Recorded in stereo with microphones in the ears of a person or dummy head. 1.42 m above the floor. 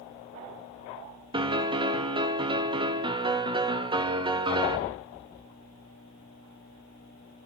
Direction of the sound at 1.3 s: 30° right (ahead or behind).